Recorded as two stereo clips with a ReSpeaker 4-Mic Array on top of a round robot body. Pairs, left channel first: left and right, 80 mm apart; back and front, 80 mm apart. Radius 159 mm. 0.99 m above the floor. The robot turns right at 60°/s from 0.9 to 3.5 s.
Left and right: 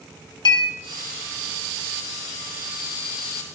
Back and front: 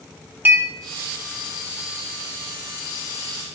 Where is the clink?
65° left, 2.5 m.